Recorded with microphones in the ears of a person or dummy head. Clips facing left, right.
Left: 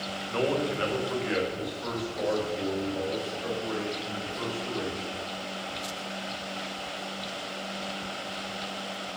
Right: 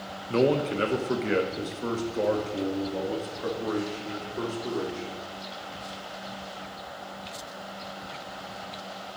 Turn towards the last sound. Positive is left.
turn(degrees=-45)  # may be behind; listen again after turning